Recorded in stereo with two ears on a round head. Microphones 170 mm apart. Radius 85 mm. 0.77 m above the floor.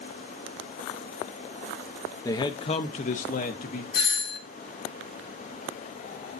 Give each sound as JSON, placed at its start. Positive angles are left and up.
{"t": 2.2, "sound": "a man speaking", "side_deg": 15, "distance_m": 0.7}
{"t": 3.9, "sound": "a doorbell", "side_deg": 55, "distance_m": 2.0}